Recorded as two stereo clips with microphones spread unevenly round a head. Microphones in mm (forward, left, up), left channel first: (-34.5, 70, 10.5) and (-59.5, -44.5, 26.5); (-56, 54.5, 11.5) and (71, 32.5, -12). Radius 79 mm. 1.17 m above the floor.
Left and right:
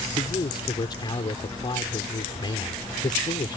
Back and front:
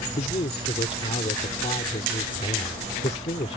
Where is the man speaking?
130° left.